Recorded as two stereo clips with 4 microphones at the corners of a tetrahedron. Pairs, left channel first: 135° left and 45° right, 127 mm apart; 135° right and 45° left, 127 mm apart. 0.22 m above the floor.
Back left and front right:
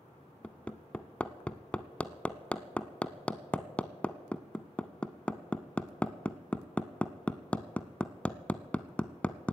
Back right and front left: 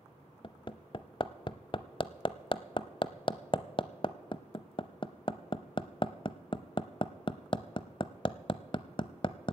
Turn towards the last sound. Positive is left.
turn(degrees=-150)